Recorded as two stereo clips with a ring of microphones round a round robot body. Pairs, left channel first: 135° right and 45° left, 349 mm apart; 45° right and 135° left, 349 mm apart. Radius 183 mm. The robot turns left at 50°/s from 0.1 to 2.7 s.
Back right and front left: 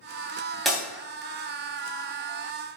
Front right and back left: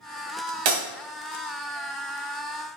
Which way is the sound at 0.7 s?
135° left.